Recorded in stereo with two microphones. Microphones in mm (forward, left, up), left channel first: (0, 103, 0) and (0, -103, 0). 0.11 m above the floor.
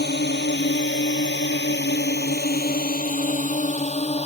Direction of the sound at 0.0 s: 55° left (ahead or behind).